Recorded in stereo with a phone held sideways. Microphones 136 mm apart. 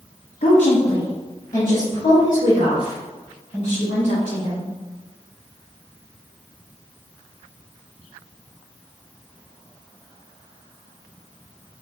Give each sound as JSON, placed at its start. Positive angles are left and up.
{"t": 0.4, "sound": "a woman speaking", "side_deg": 55, "distance_m": 0.7}